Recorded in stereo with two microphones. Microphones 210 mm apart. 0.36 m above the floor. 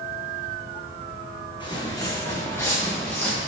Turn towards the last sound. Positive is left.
turn(degrees=5)  # may be behind; listen again after turning